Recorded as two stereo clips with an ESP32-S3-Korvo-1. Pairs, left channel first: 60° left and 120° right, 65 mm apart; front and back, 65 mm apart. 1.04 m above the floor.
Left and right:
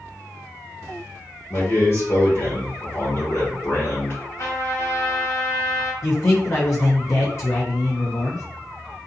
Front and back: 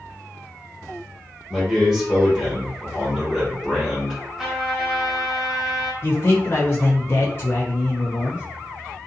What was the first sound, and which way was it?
A man speaking, 95° left.